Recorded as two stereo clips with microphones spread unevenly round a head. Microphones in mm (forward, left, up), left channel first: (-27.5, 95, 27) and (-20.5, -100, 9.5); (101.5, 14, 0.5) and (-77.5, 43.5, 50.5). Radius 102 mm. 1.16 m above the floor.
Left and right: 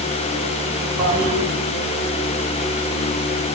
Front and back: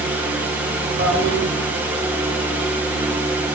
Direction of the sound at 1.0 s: 150° right.